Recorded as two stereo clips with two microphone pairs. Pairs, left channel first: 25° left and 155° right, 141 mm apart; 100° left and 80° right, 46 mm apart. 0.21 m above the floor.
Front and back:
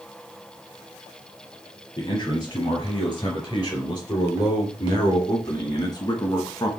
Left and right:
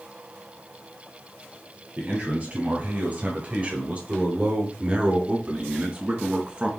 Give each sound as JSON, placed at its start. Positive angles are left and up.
{"t": 2.0, "sound": "a man speaking", "azimuth_deg": -30, "distance_m": 4.5}